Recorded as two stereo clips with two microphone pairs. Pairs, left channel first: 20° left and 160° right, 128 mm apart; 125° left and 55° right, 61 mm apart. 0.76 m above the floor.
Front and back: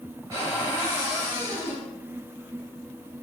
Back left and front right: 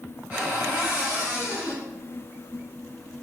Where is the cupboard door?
115° right, 1.9 m.